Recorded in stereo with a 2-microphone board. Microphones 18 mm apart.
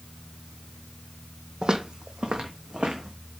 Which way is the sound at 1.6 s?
50° right (ahead or behind).